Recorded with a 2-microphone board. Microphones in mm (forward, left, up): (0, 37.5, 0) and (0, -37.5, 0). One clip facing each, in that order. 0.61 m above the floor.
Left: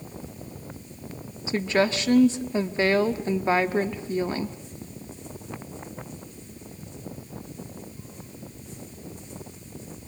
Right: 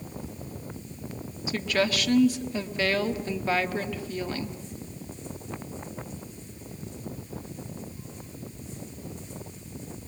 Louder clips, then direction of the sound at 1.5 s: Left 3 dB; 25° left (ahead or behind).